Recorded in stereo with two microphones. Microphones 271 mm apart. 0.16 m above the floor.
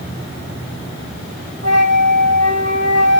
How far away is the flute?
About 2.5 m.